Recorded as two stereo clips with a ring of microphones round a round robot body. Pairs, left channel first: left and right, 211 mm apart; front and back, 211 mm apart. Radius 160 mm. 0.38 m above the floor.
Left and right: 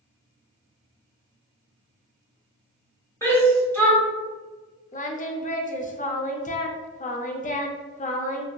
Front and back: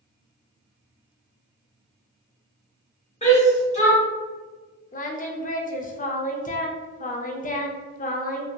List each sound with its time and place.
3.2 s a shout: 20° left, 1.6 m
4.9 s singing: 45° left, 0.5 m